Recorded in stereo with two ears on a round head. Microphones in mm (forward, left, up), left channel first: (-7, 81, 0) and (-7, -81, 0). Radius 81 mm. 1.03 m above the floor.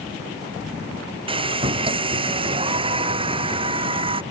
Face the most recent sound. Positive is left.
turn(degrees=-30)  # may be behind; listen again after turning